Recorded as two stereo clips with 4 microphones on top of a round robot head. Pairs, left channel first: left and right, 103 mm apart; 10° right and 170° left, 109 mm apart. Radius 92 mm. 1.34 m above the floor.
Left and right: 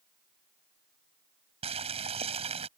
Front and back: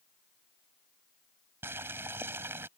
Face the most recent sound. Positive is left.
turn(degrees=-115)